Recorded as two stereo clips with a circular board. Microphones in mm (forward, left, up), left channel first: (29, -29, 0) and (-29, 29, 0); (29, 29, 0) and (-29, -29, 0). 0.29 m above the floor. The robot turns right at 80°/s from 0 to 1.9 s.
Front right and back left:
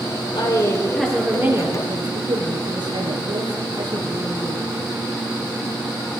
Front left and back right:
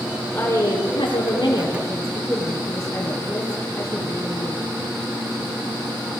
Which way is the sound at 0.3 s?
10° right.